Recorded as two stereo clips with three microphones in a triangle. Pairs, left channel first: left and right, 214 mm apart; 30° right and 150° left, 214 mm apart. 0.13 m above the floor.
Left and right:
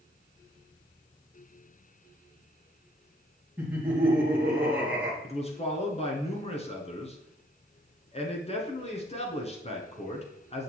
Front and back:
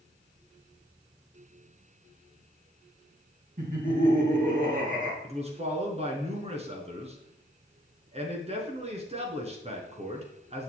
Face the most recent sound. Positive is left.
turn(degrees=120)